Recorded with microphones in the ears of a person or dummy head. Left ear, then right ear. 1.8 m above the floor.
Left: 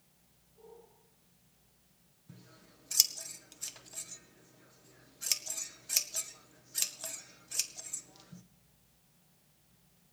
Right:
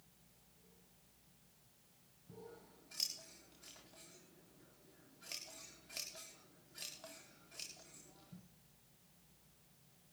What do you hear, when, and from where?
2.3 s scissors: 85° left, 1.7 m